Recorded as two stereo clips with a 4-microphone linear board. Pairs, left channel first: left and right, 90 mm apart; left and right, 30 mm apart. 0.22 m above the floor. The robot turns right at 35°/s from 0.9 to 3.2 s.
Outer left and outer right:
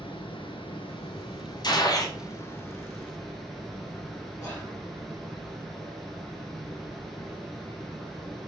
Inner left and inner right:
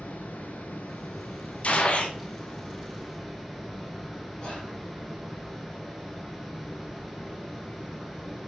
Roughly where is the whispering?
Left.